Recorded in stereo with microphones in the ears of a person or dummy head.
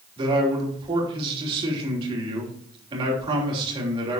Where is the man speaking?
30° right (ahead or behind), 3 m.